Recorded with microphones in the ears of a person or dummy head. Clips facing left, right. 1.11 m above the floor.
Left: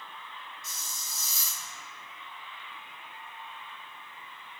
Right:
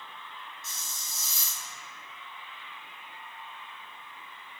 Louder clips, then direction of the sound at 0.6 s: Even; 20° right (ahead or behind).